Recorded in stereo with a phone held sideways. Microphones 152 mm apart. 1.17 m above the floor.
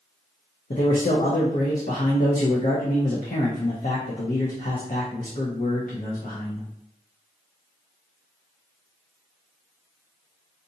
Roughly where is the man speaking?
Left.